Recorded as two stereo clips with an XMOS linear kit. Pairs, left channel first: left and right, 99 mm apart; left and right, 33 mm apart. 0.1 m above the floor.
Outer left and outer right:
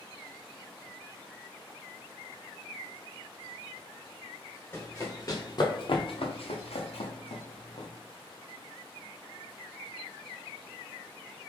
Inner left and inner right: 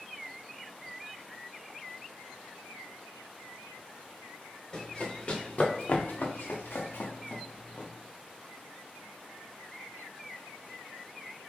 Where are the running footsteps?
25° left (ahead or behind), 1.9 m; by 7.9 s 55° left (ahead or behind), 1.7 m.